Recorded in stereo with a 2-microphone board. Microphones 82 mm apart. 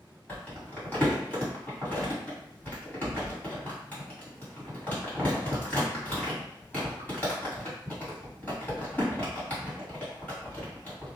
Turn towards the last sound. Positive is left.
turn(degrees=20)  # may be behind; listen again after turning